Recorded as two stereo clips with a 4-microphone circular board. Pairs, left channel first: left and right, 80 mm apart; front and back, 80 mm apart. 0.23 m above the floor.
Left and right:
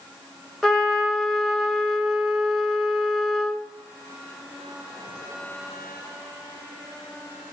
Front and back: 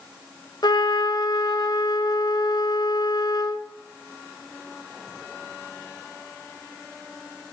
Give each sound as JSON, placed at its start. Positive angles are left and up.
{"t": 0.6, "sound": "a trumpet", "azimuth_deg": 10, "distance_m": 0.8}